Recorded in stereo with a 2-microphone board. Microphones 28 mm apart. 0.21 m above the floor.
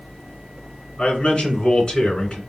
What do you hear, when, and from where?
1.0 s a man speaking: 35° left (ahead or behind), 3 m